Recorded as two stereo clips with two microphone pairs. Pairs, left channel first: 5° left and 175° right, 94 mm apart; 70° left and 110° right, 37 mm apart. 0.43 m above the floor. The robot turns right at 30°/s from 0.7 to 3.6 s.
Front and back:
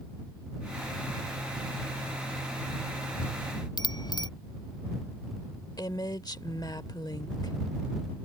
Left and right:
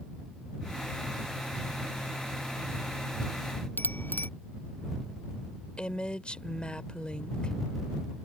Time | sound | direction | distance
3.8 | a bicycle bell | 45° left | ?
5.8 | a woman speaking | 20° left | ?